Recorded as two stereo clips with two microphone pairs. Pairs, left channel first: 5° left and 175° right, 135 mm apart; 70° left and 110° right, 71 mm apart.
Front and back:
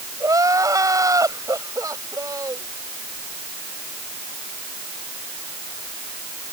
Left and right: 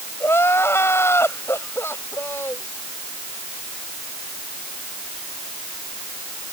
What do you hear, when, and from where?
0.2 s crying: 120° left